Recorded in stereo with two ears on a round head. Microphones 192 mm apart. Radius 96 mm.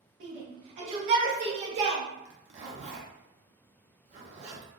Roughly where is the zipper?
Right.